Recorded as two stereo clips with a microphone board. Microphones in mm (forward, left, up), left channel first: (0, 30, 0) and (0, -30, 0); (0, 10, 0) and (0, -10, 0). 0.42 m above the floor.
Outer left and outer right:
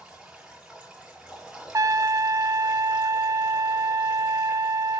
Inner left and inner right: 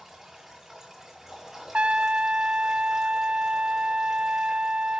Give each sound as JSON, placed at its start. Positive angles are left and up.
{"t": 0.0, "sound": "running water", "side_deg": -10, "distance_m": 7.0}
{"t": 1.7, "sound": "a trumpet", "side_deg": -65, "distance_m": 0.5}